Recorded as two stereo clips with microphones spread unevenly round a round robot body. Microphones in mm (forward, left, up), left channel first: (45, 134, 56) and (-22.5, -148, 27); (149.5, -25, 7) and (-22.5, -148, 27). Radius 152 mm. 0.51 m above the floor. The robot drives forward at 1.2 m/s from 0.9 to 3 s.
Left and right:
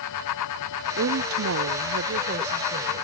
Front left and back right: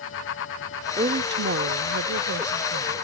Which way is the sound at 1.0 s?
90° right.